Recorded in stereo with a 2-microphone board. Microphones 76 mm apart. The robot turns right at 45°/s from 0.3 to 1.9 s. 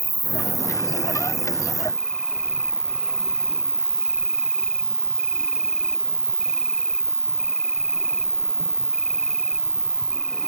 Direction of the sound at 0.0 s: 80° right.